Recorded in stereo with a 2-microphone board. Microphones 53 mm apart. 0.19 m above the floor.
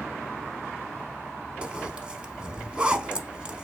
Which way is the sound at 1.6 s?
20° right (ahead or behind).